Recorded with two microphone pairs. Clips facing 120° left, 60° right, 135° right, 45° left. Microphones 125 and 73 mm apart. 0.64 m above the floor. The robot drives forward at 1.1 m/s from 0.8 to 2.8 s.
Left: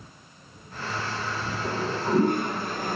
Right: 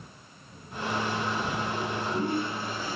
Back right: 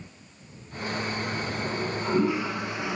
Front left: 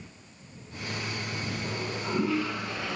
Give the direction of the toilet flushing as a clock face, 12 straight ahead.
7 o'clock.